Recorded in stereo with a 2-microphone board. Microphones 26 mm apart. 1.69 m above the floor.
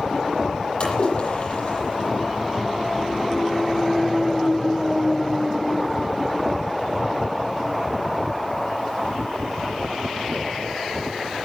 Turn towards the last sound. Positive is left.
turn(degrees=45)  # may be behind; listen again after turning